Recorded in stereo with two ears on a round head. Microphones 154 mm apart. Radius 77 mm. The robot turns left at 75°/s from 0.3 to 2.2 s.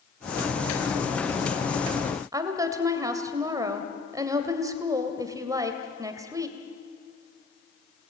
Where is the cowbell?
I don't hear a cowbell.